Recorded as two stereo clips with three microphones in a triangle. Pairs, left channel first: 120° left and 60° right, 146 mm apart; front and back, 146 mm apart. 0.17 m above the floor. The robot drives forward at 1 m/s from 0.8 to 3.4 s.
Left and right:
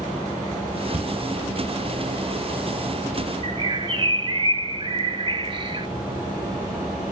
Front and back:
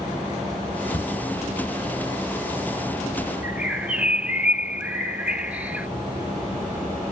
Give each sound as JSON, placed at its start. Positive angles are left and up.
{"t": 0.9, "sound": "a cupboard door", "azimuth_deg": -65, "distance_m": 1.6}
{"t": 3.4, "sound": "a bird", "azimuth_deg": -105, "distance_m": 0.8}